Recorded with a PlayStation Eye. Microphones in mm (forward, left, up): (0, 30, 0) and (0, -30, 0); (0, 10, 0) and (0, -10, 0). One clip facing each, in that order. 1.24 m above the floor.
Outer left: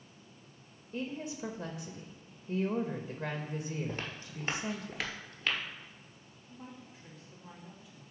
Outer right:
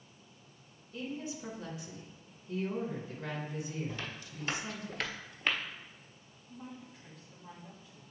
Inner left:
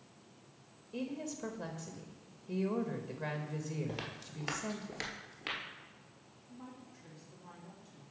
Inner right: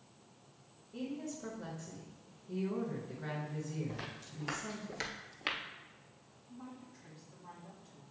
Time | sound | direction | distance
0.9 | a woman speaking | 55° left (ahead or behind) | 1.0 m
3.9 | footsteps | 45° left (ahead or behind) | 1.6 m
6.5 | a woman speaking | 5° left (ahead or behind) | 2.5 m